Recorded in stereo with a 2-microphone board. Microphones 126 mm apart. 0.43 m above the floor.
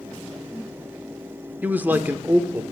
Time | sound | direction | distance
1.6 | a man speaking | 15° right (ahead or behind) | 1.0 m